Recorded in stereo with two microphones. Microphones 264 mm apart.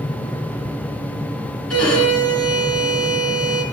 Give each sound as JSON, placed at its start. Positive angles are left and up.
{"t": 1.7, "sound": "a violin", "side_deg": 70, "distance_m": 3.0}